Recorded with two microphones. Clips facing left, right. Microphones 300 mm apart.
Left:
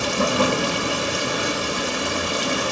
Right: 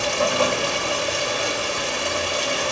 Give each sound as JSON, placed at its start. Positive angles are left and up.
{"t": 0.0, "sound": "running water", "side_deg": 50, "distance_m": 1.4}